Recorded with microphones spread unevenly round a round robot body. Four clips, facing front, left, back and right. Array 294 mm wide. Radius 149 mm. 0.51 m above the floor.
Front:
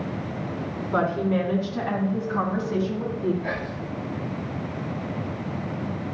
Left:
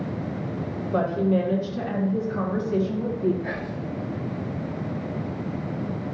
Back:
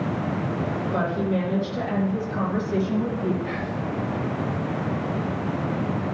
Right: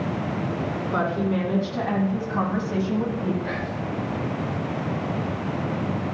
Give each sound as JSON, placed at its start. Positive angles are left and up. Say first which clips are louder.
{"t": 0.9, "sound": "a woman speaking", "louder": "left 3 dB, front 3 dB", "azimuth_deg": -45, "distance_m": 4.0}
{"t": 3.4, "sound": "whispering", "louder": "right 2 dB, back 2 dB", "azimuth_deg": -25, "distance_m": 1.7}